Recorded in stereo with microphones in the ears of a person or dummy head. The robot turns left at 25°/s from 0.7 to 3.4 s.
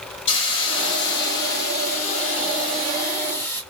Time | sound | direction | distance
0.3 | a hiss | 85° left | 1.3 m